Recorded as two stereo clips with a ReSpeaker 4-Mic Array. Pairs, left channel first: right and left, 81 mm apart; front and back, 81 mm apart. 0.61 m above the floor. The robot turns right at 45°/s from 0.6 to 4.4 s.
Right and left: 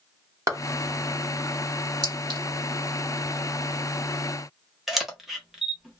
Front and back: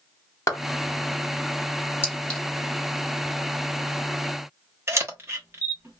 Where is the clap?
45° left, 1.4 m.